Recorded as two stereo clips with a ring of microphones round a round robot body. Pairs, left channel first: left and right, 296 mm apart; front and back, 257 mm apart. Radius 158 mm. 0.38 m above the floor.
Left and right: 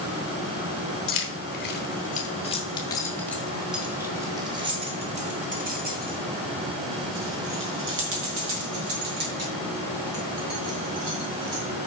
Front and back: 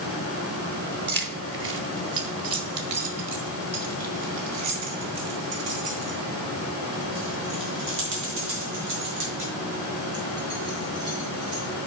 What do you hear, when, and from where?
1.1 s keys jangling: 135° left, 1.8 m; by 11.6 s 125° right, 5 m